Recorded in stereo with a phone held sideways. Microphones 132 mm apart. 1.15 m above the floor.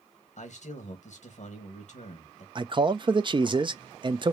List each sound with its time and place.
0.4 s a man speaking: 60° left (ahead or behind), 1.7 m
2.5 s a man speaking: 40° right (ahead or behind), 0.5 m